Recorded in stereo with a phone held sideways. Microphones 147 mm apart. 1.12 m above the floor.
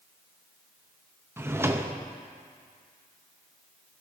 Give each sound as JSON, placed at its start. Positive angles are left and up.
{"t": 1.4, "sound": "a drawer", "side_deg": -15, "distance_m": 0.5}